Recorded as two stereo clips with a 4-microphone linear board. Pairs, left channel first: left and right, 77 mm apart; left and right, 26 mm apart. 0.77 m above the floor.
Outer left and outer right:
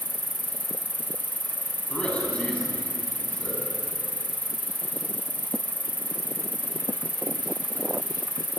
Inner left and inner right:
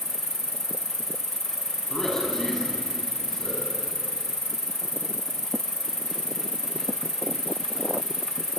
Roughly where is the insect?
Left.